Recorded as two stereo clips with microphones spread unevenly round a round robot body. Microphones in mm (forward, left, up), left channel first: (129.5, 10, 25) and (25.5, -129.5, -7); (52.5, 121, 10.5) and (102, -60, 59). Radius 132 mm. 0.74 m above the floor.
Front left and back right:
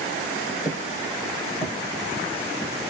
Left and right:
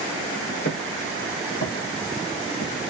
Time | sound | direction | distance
0.7 | footsteps | 145° left | 1.7 m